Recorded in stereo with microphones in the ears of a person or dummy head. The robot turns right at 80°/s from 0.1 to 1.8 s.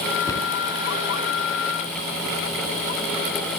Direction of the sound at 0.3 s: 20° left (ahead or behind).